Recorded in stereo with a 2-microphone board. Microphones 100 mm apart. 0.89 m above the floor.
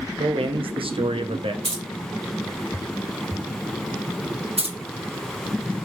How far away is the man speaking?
About 0.6 m.